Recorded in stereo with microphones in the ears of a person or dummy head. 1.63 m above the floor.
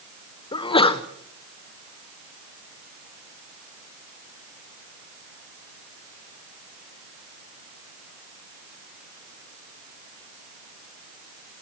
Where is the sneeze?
25° left (ahead or behind), 1.5 m.